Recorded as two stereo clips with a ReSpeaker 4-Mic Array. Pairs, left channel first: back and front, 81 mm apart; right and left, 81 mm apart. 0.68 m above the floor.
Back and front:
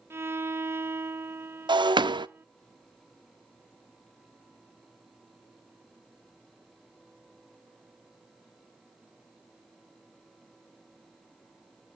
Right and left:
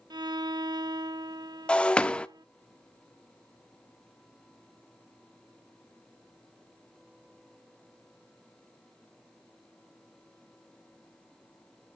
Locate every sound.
0.1 s a violin: 60° left, 0.5 m
1.7 s breaking glass: 15° right, 0.6 m